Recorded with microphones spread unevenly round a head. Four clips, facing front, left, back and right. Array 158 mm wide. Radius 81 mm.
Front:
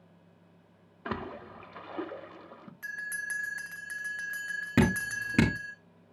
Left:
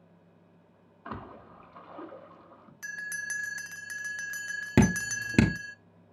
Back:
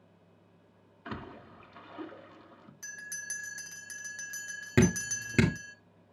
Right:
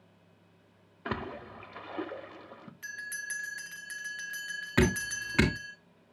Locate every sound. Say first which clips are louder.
1.1 s a splash: right 5 dB, front 6 dB; 60° right, 1.4 m
2.8 s a bell: left 4 dB, front 7 dB; 90° left, 0.6 m
4.8 s dripping: left 3 dB, even; 95° left, 3.5 m